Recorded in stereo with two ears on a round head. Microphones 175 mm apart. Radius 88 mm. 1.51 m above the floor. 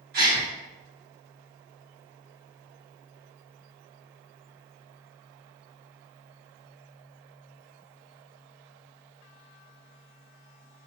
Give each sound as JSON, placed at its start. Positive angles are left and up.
{"t": 0.1, "sound": "a gasp", "side_deg": -50, "distance_m": 1.6}